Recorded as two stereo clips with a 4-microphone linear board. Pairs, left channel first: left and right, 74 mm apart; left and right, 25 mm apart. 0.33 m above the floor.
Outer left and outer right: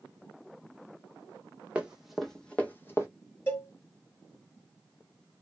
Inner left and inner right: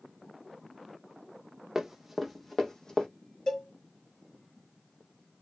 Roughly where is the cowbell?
Left.